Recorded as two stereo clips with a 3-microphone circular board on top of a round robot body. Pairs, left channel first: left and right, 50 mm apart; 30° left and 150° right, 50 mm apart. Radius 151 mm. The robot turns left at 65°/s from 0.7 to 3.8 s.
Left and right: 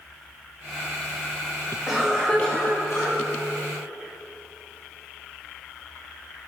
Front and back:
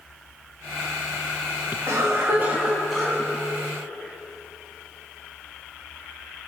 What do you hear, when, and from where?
1.9 s a cough: 170° right, 3.5 m; by 3.2 s 105° left, 3.5 m